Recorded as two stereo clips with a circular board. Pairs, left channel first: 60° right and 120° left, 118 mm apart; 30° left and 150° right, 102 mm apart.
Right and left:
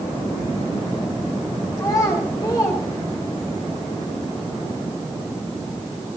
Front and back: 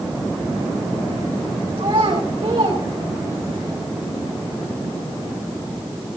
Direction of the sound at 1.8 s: 115° right.